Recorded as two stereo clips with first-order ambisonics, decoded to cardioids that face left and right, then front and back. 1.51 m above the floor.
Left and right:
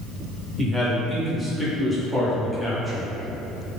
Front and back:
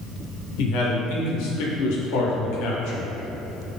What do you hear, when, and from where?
0.6 s a man speaking: 5° left, 0.6 m